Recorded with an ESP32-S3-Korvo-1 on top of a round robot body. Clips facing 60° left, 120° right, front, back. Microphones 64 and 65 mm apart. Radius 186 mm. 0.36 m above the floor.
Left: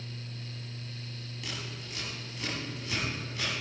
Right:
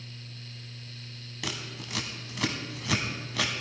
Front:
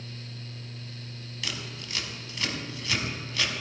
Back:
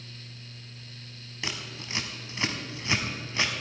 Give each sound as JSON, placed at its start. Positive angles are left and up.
{"t": 1.4, "sound": "scissors", "azimuth_deg": -115, "distance_m": 1.2}